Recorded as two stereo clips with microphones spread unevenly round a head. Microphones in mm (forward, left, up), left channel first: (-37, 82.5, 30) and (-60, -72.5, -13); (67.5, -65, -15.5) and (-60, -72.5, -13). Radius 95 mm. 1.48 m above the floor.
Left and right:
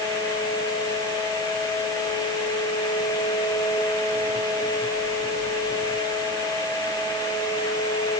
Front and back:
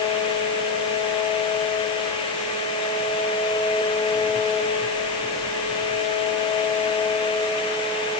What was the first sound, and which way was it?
Only background noise.